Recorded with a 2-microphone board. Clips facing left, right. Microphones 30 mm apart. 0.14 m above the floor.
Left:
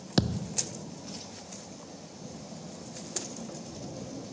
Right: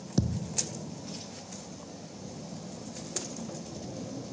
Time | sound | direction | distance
0.2 | a thud | 70° left (ahead or behind) | ?